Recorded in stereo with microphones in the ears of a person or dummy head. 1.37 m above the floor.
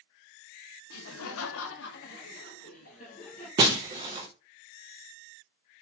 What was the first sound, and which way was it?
Laughter, 60° left (ahead or behind).